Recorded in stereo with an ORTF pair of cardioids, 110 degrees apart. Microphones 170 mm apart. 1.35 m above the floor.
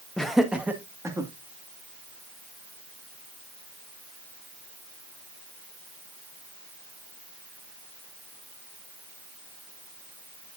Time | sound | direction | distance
0.2 | laughter | 5° left | 1.7 m